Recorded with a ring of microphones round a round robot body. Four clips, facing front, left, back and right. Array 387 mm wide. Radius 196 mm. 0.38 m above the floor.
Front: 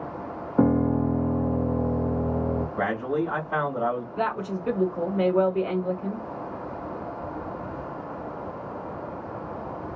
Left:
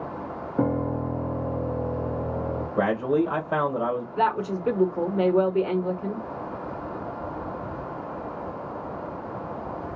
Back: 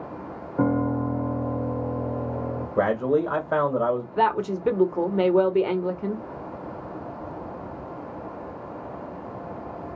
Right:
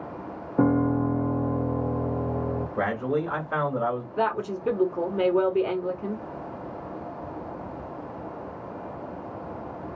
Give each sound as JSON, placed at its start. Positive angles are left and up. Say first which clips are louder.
{"t": 0.6, "sound": "a piano", "louder": "right 4 dB, front 2 dB", "azimuth_deg": -10, "distance_m": 1.3}
{"t": 2.8, "sound": "a man speaking", "louder": "left 5 dB, back 8 dB", "azimuth_deg": 160, "distance_m": 1.4}
{"t": 4.2, "sound": "a woman speaking", "louder": "left 3 dB, back 5 dB", "azimuth_deg": 180, "distance_m": 1.4}